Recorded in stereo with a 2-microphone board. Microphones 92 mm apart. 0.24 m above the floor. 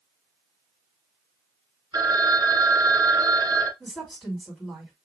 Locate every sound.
1.9 s a phone ringing: 45° right (ahead or behind), 1.3 m
3.8 s a woman speaking: centre (ahead or behind), 2 m